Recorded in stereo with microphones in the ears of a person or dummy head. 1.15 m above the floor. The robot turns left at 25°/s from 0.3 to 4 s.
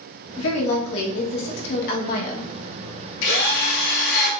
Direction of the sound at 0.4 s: 95° left.